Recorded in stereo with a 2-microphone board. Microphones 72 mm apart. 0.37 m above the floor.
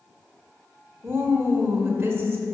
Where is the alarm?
No alarm in this recording.